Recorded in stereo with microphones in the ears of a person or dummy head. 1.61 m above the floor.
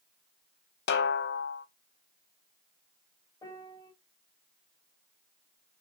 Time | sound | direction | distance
0.9 | a snare drum | 60° left (ahead or behind) | 0.5 m
3.4 | a piano | 15° left (ahead or behind) | 1.7 m